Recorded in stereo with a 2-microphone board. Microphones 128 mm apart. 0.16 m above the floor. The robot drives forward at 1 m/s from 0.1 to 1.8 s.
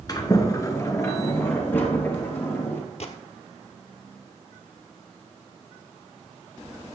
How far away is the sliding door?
About 1.8 m.